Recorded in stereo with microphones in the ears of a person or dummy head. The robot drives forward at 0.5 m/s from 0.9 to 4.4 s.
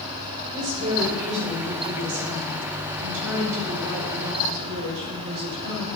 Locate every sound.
0.5 s a woman speaking: 55° right (ahead or behind), 3.5 m; by 5.9 s 85° right, 2.5 m